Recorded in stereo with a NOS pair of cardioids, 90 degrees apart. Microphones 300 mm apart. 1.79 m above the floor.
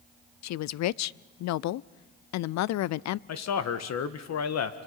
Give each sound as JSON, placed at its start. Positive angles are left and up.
{"t": 0.4, "sound": "a woman speaking", "azimuth_deg": 65, "distance_m": 0.5}
{"t": 3.3, "sound": "a man speaking", "azimuth_deg": 65, "distance_m": 1.6}